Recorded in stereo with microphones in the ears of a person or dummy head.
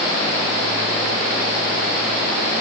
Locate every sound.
Only background noise.